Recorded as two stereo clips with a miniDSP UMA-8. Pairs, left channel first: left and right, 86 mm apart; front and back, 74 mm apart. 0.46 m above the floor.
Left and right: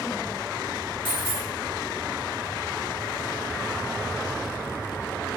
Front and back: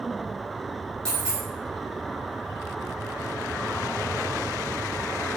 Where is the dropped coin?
70° left, 1.3 m.